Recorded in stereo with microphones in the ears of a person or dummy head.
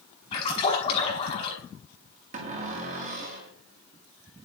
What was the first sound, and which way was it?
A splash, 40° left (ahead or behind).